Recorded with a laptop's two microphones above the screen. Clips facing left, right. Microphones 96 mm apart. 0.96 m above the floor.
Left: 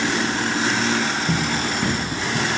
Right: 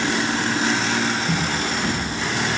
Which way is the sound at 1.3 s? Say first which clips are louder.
Left 1 dB; 20° left (ahead or behind).